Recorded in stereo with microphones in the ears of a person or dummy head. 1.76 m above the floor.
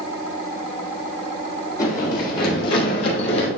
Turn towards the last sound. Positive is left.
turn(degrees=40)  # may be behind; listen again after turning